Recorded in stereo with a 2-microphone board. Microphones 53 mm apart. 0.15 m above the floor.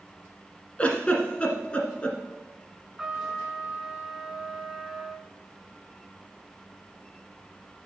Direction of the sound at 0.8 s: 25° left (ahead or behind).